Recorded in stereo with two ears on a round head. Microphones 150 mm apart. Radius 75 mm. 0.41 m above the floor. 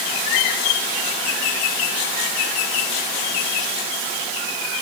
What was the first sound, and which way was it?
Only background noise.